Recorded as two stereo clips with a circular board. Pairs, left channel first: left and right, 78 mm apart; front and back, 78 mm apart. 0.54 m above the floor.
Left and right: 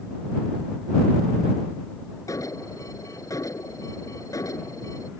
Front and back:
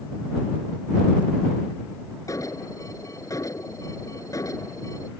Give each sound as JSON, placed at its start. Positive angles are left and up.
{"t": 2.3, "sound": "an alarm", "azimuth_deg": 45}